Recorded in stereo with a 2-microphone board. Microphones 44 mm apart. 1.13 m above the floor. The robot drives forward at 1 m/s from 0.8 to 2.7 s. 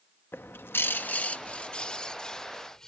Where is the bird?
50° left (ahead or behind); by 2.9 s 15° left (ahead or behind).